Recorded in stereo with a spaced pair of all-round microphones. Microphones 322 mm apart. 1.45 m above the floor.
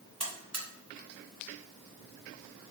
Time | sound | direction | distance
0.2 | a buzzer | 50° right (ahead or behind) | 0.8 m